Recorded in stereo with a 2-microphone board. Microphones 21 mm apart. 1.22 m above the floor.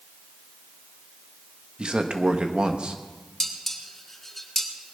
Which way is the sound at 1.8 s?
45° right (ahead or behind).